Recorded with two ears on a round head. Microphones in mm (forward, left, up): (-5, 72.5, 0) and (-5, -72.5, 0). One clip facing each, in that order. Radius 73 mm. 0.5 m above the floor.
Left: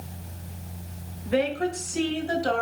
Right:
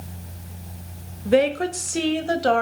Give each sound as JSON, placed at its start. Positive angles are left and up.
{"t": 1.2, "sound": "a woman speaking", "side_deg": -55, "distance_m": 1.7}